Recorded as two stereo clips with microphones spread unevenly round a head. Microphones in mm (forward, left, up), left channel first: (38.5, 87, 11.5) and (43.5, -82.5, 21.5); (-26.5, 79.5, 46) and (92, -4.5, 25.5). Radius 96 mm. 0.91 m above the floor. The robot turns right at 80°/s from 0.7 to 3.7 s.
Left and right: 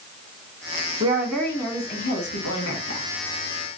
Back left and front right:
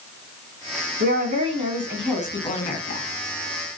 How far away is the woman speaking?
About 1.5 m.